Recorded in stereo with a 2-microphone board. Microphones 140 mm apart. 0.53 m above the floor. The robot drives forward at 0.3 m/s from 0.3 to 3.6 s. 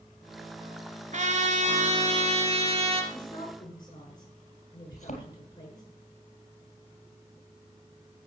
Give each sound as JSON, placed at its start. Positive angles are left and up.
{"t": 1.1, "sound": "a trumpet", "side_deg": -60, "distance_m": 1.9}
{"t": 3.1, "sound": "a woman speaking", "side_deg": 30, "distance_m": 6.5}
{"t": 4.9, "sound": "a thud", "side_deg": 55, "distance_m": 2.5}